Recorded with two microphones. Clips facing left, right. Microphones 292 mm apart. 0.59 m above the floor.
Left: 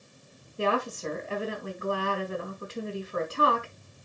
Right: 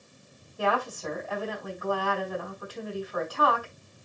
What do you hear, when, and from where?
0.6 s a woman speaking: 25° left (ahead or behind), 4 m